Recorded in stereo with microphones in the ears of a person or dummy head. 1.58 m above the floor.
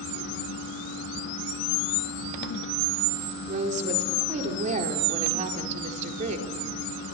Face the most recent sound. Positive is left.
turn(degrees=-40)  # may be behind; listen again after turning